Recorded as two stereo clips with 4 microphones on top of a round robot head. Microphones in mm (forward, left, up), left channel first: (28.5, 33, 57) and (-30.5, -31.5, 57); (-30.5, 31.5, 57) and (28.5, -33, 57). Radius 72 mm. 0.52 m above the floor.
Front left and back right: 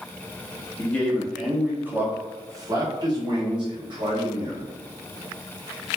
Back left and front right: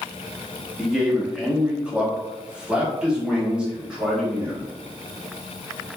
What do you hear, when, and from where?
0.8 s a man speaking: 25° left, 0.8 m; by 4.7 s 125° right, 1.9 m